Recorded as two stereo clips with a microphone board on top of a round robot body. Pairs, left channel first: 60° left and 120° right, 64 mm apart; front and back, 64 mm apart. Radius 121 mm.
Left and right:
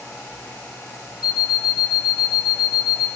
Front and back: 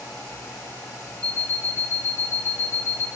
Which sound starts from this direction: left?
An alarm clock, at 1.2 s.